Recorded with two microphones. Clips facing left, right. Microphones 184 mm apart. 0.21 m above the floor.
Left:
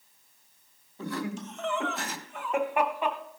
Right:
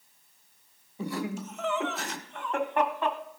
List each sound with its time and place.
1.0 s laughter: 15° right (ahead or behind), 1.2 m; by 3.2 s 15° left (ahead or behind), 1.3 m